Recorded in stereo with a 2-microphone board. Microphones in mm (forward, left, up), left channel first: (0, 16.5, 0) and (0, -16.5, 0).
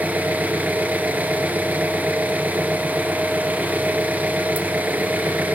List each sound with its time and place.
0.0 s an engine running: 60° right (ahead or behind), 1.7 m